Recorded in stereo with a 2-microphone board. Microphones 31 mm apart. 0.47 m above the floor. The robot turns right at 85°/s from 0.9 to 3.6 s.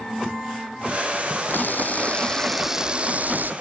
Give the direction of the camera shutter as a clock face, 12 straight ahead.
9 o'clock.